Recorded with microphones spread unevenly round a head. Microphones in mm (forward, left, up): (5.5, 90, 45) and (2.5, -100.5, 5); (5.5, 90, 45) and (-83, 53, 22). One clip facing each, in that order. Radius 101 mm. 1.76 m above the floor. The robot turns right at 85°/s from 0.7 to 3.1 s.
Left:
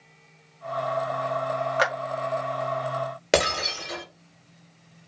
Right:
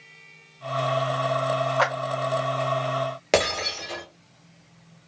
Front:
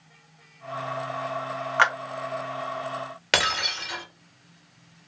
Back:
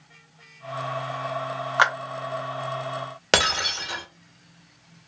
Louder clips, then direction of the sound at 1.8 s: Left 1 dB, back 1 dB; 120° left.